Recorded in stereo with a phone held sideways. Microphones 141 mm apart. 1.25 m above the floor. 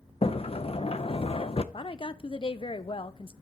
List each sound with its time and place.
0.2 s a sliding door: 40° left (ahead or behind), 0.6 m
1.7 s a woman speaking: 40° left (ahead or behind), 0.7 m